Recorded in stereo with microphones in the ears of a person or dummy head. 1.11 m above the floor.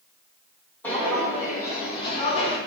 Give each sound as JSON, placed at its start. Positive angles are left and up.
{"t": 0.8, "sound": "footsteps", "side_deg": 10, "distance_m": 3.5}